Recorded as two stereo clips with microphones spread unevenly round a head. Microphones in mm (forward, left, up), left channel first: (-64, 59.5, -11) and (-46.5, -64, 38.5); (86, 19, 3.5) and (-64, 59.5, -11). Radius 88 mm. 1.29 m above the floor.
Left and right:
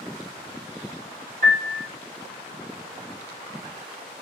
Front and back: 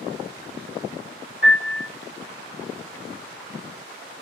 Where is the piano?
60° right, 1.1 m.